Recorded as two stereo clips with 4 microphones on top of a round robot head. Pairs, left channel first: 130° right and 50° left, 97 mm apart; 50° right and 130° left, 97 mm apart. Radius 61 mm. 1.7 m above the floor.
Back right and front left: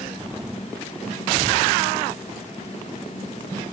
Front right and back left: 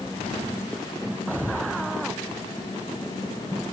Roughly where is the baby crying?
No baby crying in this recording.